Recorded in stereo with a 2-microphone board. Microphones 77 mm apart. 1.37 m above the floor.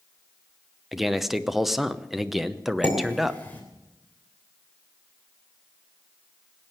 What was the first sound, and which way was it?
A man speaking, centre (ahead or behind).